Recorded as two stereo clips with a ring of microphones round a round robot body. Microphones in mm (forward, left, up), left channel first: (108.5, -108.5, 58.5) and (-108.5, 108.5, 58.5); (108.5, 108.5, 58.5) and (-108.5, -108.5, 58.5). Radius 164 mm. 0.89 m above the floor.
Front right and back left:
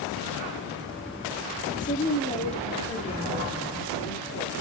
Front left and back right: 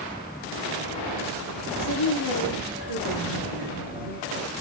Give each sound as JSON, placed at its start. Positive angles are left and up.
{"t": 1.8, "sound": "a woman speaking", "azimuth_deg": 20, "distance_m": 2.0}